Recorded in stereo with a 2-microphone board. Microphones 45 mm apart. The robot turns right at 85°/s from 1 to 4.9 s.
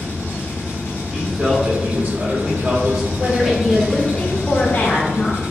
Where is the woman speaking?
30° right, 1.2 m; by 5.4 s 115° left, 1.2 m.